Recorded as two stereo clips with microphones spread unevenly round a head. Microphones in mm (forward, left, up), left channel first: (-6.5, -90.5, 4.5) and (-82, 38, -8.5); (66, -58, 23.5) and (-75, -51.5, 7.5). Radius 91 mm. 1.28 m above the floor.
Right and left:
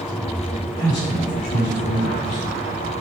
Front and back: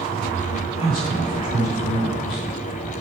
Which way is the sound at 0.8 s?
55° right.